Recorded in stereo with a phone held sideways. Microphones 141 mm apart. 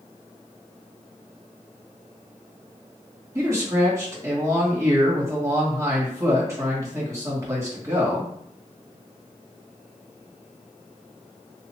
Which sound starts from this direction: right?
A man speaking, at 3.4 s.